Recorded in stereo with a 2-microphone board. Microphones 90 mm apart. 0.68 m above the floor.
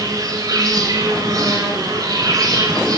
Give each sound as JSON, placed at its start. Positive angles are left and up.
{"t": 0.0, "sound": "an insect", "side_deg": -40, "distance_m": 1.5}